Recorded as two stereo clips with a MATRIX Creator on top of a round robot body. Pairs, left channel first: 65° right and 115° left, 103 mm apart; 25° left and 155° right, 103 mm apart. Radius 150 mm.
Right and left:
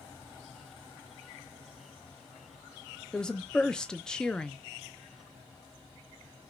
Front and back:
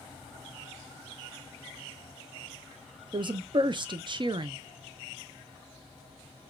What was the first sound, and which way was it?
A woman speaking, 150° right.